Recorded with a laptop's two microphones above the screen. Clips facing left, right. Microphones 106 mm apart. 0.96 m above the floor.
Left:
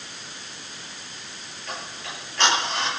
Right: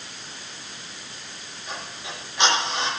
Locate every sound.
1.7 s ticking: 15° right (ahead or behind), 9.5 m